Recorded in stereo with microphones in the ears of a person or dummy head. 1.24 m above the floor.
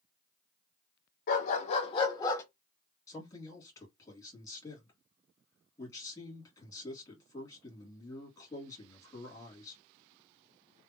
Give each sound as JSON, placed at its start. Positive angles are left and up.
{"t": 1.3, "sound": "a dog barking", "side_deg": 55, "distance_m": 1.3}
{"t": 3.1, "sound": "a man speaking", "side_deg": 20, "distance_m": 2.5}